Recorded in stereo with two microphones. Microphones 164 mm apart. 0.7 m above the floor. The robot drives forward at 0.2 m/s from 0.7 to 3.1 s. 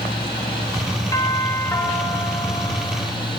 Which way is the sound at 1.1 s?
20° left (ahead or behind).